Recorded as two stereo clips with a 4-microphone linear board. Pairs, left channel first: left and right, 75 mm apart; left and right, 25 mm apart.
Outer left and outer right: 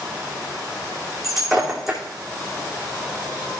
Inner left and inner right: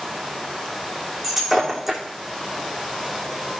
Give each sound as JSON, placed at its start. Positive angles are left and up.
{"t": 1.2, "sound": "breaking glass", "side_deg": 0, "distance_m": 3.0}